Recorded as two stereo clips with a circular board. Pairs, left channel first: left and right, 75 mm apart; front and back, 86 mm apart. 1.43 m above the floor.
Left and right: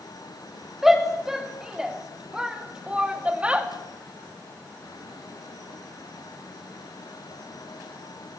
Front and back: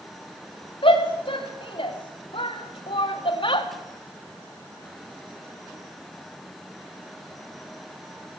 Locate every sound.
0.8 s a shout: 5° right, 4.5 m; by 3.7 s 15° right, 3 m